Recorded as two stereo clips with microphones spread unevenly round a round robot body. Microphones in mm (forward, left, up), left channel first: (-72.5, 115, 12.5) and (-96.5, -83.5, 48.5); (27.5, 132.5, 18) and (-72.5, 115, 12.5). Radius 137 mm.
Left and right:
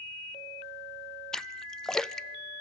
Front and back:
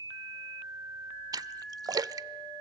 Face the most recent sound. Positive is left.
turn(degrees=160)